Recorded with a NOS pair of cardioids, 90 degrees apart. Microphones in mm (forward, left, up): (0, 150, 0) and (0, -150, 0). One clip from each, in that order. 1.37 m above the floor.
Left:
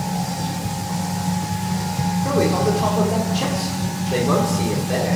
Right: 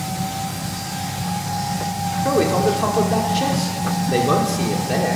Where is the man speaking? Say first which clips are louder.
Right 2 dB; 25° right, 5 m.